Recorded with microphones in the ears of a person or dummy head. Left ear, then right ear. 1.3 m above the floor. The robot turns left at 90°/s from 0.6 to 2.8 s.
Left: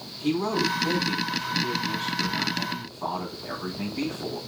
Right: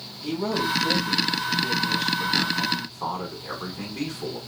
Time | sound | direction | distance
0.2 | a man speaking | 95° left | 5 m